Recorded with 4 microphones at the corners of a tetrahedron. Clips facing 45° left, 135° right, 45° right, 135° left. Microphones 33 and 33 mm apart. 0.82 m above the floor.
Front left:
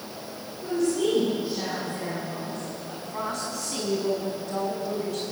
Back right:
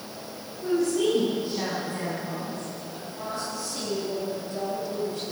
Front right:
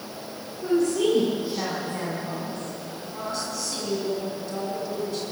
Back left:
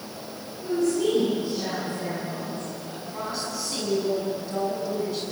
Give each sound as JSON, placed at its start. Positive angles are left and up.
{"t": 0.6, "sound": "a woman speaking", "azimuth_deg": -55, "distance_m": 9.0}
{"t": 2.9, "sound": "a woman speaking", "azimuth_deg": 50, "distance_m": 6.0}